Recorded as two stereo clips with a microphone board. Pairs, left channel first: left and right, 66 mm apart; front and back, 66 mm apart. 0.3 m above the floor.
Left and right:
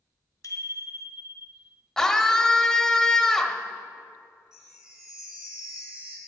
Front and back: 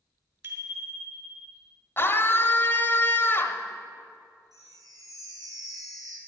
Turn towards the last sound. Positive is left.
turn(degrees=-170)